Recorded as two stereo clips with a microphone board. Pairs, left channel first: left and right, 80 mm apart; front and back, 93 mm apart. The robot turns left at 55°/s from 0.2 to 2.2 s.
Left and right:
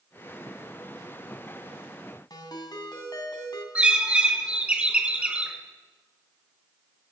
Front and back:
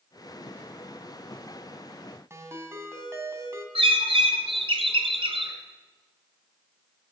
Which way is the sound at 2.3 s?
120° left.